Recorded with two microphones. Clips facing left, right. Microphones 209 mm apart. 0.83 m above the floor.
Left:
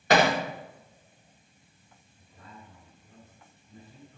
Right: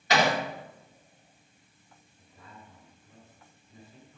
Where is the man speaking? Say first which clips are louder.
Left 2 dB; 40° left (ahead or behind), 6.5 m.